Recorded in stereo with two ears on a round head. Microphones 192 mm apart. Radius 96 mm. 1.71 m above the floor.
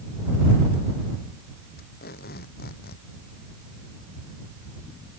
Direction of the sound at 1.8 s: 50° left (ahead or behind).